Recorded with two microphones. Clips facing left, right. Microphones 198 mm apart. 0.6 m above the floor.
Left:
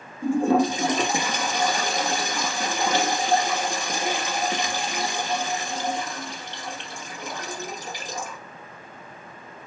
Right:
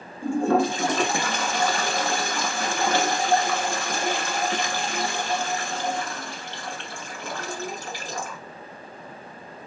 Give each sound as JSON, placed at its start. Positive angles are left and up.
{"t": 0.2, "sound": "a toilet flushing", "side_deg": 15, "distance_m": 1.4}